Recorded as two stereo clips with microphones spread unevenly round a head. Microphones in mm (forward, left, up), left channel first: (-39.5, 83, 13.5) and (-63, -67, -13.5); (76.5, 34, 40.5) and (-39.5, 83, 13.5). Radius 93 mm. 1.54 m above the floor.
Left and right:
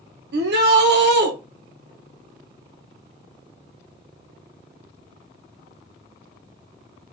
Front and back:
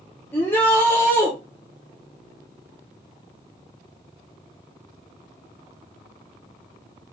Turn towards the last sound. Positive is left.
turn(degrees=-100)